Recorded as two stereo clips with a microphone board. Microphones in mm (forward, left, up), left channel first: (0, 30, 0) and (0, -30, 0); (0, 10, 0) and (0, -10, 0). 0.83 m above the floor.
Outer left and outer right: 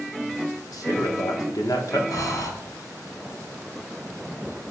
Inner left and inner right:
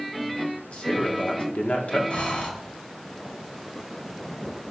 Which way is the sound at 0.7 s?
70° left (ahead or behind).